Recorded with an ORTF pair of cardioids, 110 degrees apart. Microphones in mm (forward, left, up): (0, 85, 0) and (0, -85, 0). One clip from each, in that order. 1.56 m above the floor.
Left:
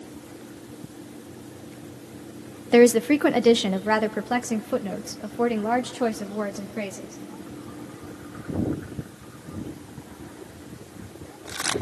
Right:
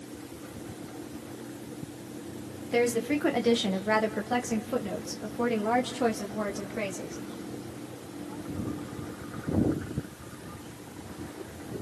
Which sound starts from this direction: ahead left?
A woman speaking, at 2.7 s.